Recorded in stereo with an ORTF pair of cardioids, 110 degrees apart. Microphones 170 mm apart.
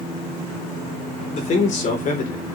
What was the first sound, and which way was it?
A man speaking, 45° left.